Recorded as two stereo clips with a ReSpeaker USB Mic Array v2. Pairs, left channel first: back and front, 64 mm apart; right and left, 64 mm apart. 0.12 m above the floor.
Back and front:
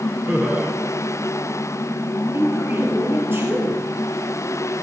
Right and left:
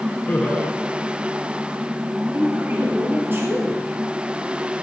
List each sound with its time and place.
0.3 s laughter: 40° right, 2.0 m
2.3 s a woman speaking: 45° left, 2.5 m